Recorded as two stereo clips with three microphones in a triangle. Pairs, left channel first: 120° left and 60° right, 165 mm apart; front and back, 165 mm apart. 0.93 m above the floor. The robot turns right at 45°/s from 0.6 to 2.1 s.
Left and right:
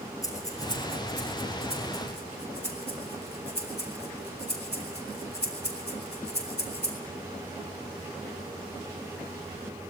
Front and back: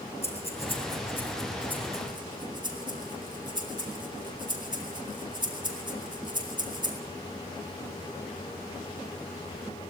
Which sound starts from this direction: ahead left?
Breathing, at 0.2 s.